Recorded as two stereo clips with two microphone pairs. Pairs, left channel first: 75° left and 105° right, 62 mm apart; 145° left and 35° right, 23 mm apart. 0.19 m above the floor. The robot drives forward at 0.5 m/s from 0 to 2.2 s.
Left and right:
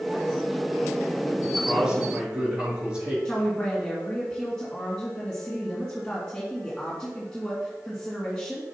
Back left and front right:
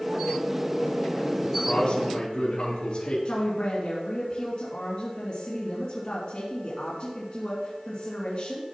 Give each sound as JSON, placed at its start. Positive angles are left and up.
{"t": 1.4, "sound": "a man speaking", "azimuth_deg": -175, "distance_m": 3.0}
{"t": 3.2, "sound": "a woman speaking", "azimuth_deg": 145, "distance_m": 2.5}